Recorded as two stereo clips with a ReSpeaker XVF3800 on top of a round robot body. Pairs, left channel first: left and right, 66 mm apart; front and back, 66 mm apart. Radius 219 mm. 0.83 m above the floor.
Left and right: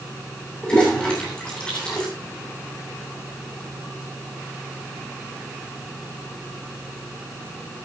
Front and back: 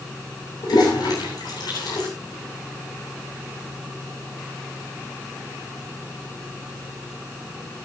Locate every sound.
0.6 s a toilet flushing: 15° left, 9 m